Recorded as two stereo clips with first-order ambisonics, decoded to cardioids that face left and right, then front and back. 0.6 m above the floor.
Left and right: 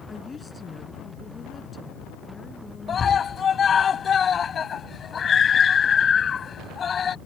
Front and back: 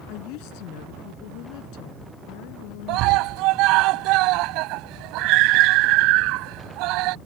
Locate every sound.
0.1 s a woman speaking: 10° left
2.9 s a scream: 155° left